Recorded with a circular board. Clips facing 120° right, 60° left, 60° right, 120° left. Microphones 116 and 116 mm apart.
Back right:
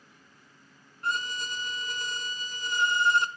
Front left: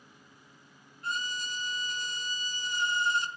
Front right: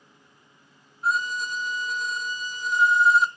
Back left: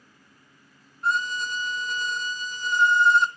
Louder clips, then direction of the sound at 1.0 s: Back right 4 dB, even; 145° right.